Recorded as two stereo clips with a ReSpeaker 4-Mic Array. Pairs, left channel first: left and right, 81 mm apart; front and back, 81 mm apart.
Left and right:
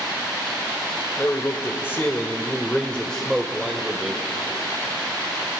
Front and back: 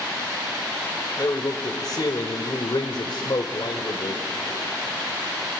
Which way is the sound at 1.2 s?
40° left.